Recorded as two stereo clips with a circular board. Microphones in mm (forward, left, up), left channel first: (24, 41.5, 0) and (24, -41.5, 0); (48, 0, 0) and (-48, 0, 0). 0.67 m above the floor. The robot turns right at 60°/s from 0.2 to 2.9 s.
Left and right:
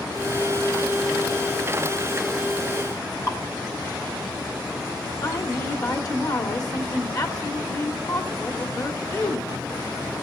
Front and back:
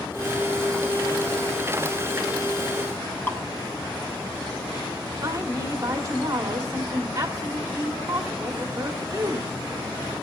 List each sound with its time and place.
3.3 s dripping: 60° left, 1.1 m
5.2 s a woman speaking: 125° left, 1.3 m